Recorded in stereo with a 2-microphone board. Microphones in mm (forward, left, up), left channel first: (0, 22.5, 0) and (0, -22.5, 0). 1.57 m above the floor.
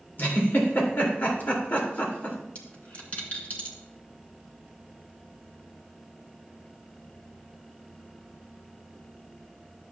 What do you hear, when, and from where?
0.2 s a giggle: 45° left (ahead or behind), 2.5 m
2.5 s a dropped coin: 40° left (ahead or behind), 1.9 m